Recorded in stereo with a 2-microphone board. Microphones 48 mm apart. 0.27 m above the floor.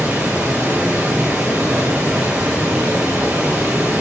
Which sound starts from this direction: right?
Running water, at 0.0 s.